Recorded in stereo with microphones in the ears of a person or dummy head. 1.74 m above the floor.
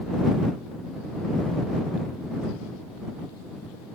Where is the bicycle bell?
No bicycle bell in this recording.